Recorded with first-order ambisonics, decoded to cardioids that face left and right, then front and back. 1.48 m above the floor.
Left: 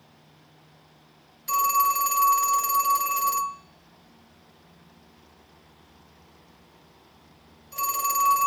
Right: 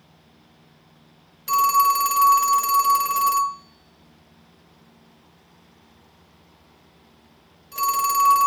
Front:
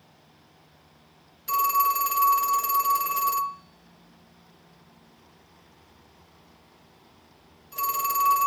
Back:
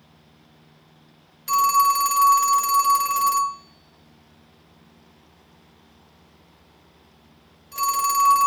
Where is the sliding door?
I don't hear a sliding door.